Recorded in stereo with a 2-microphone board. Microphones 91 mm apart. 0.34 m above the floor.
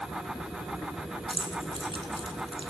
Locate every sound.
1.3 s keys jangling: 70° right (ahead or behind), 2.5 m